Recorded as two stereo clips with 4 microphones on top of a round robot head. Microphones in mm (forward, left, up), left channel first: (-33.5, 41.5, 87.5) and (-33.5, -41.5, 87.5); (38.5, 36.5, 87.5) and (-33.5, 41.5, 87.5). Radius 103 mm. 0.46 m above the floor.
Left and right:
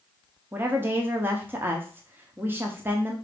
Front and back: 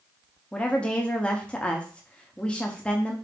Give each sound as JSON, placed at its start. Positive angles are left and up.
{"t": 0.5, "sound": "a woman speaking", "azimuth_deg": -60, "distance_m": 0.8}